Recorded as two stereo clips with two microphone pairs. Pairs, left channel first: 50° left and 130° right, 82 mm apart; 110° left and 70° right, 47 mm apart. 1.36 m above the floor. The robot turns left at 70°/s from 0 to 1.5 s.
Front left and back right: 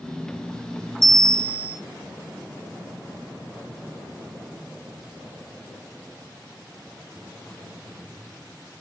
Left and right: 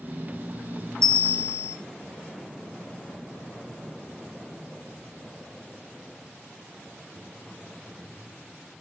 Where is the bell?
165° right, 1.1 m; by 1.8 s 160° left, 1.1 m.